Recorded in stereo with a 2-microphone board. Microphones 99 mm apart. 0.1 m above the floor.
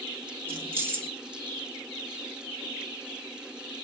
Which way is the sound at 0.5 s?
20° right (ahead or behind).